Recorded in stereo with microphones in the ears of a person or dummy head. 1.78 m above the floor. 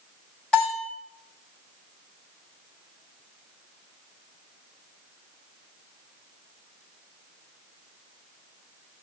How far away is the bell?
About 5.5 m.